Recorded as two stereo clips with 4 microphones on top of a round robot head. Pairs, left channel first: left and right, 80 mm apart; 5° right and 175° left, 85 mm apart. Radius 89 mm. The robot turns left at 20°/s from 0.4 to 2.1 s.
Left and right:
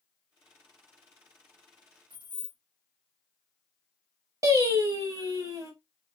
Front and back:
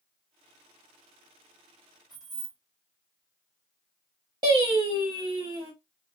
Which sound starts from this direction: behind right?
Singing, at 4.4 s.